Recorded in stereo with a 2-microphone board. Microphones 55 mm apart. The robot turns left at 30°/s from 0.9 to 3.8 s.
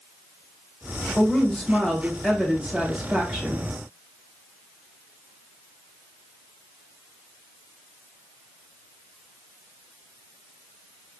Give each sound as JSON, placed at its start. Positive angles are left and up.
{"t": 1.2, "sound": "a woman speaking", "azimuth_deg": 30, "distance_m": 1.1}